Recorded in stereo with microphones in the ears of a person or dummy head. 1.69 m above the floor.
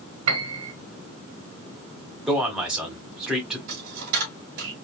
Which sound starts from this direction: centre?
A man speaking, at 2.3 s.